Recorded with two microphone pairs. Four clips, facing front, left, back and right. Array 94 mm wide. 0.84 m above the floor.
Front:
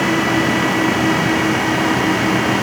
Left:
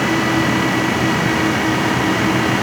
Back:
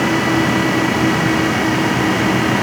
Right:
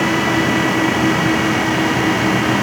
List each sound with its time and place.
Only background noise.